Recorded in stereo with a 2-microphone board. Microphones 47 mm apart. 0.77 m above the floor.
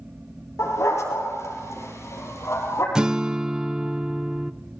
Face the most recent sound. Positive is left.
turn(degrees=-15)  # may be behind; listen again after turning